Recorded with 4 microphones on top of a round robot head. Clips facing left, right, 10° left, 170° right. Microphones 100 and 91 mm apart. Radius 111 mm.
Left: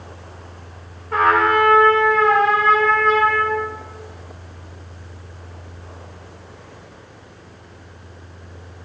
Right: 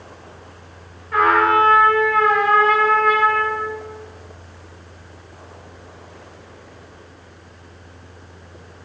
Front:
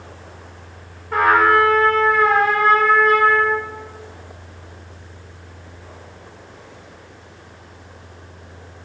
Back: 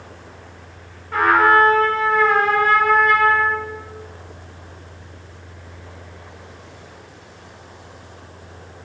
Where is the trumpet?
40° left, 3 m.